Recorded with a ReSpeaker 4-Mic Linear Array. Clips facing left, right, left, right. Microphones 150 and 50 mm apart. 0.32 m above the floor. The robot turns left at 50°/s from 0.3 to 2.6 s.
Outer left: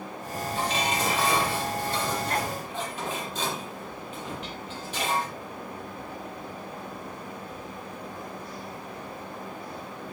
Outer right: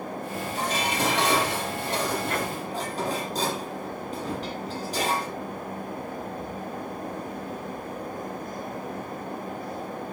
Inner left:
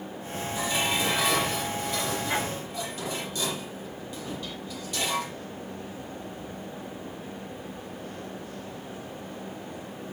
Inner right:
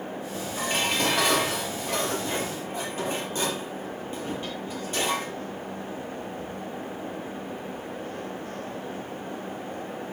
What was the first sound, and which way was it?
Dishes clattering, 40° right.